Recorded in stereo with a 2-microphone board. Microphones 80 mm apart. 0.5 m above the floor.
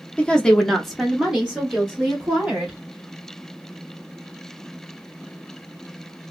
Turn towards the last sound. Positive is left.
turn(degrees=-15)  # may be behind; listen again after turning